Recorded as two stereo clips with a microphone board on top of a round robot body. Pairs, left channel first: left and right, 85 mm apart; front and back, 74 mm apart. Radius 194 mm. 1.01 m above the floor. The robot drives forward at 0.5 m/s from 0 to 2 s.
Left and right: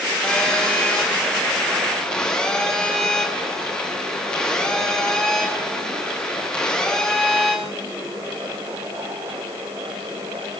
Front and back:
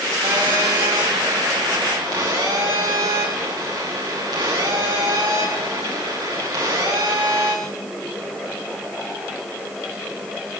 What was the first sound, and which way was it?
A phone buzzing, 165° left.